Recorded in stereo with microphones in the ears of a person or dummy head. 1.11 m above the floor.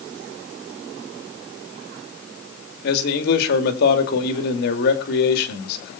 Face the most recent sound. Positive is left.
turn(degrees=60)  # may be behind; listen again after turning